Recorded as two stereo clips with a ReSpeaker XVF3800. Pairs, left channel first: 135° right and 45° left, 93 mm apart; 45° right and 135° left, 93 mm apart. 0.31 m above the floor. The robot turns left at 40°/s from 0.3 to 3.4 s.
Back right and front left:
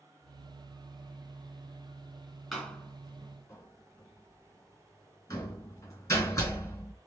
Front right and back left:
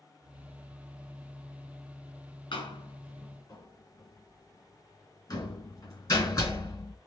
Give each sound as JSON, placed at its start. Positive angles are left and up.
{"t": 2.5, "sound": "a door slam", "azimuth_deg": -45, "distance_m": 2.5}